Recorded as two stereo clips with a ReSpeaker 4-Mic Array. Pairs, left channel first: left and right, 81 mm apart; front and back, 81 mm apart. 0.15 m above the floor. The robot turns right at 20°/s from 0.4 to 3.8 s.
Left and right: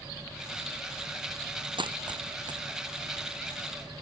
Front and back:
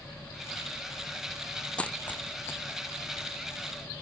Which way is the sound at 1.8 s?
75° right.